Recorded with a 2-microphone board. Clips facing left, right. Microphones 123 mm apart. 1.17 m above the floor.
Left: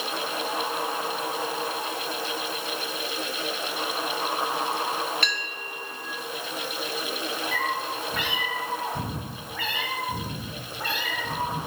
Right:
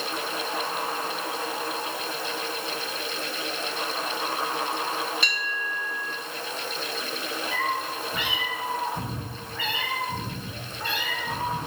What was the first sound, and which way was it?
A bell, 55° left (ahead or behind).